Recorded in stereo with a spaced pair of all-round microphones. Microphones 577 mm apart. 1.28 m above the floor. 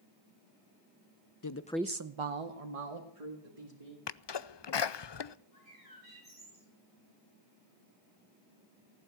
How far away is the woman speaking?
About 0.8 m.